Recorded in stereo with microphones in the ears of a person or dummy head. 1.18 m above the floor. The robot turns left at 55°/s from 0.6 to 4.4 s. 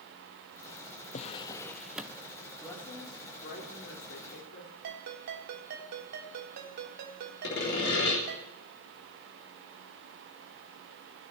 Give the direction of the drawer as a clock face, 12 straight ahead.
11 o'clock.